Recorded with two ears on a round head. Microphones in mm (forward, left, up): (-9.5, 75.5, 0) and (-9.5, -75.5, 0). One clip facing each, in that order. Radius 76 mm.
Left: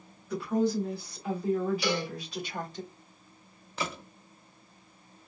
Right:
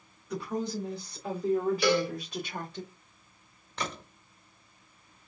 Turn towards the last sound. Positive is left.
turn(degrees=5)  # may be behind; listen again after turning